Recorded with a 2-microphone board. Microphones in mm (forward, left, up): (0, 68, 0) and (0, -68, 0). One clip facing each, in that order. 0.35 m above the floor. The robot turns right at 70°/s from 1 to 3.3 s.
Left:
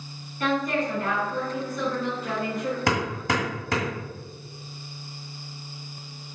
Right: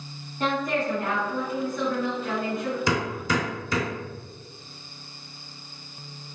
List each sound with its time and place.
0.4 s a woman speaking: 45° right, 1.9 m; by 2.8 s 80° left, 1.9 m
2.9 s hammering: 60° left (ahead or behind), 1.4 m